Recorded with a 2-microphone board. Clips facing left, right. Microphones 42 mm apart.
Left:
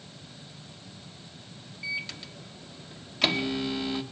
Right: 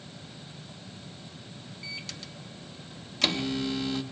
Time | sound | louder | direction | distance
1.8 | a microwave | left 8 dB | 15° left (ahead or behind) | 1.0 m